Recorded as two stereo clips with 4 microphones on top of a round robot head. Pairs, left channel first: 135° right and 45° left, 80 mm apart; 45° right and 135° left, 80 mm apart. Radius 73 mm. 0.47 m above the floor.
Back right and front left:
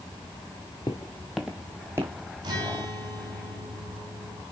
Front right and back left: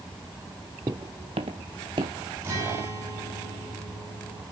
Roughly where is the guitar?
Left.